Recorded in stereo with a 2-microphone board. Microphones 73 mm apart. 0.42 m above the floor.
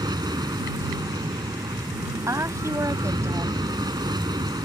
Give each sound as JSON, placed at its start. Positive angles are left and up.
{"t": 0.0, "sound": "an aircraft", "side_deg": -65}
{"t": 2.3, "sound": "a woman speaking", "side_deg": -45}